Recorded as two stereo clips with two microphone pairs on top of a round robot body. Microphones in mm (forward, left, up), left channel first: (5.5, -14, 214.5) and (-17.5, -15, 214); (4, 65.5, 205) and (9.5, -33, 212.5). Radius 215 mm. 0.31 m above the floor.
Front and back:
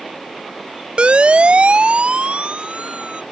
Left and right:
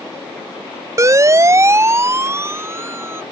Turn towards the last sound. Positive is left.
turn(degrees=-155)